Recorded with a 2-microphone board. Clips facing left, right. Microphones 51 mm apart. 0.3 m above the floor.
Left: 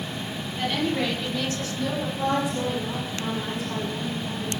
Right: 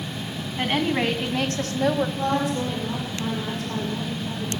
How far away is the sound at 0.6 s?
About 3 m.